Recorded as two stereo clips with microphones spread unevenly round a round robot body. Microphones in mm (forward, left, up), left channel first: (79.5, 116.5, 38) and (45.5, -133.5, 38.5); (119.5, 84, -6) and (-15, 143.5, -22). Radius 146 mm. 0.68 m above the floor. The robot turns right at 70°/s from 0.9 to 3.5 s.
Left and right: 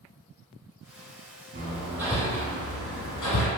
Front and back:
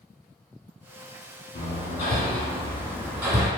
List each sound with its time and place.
1.6 s hammering: 45° right, 1.1 m; by 3.5 s 90° left, 1.1 m